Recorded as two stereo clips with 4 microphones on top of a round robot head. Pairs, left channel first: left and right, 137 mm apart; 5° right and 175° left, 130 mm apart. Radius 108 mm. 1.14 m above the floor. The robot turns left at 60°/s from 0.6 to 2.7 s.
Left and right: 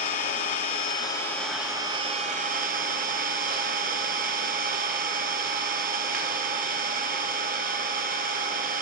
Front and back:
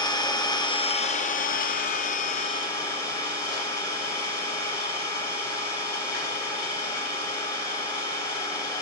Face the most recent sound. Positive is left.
turn(degrees=-75)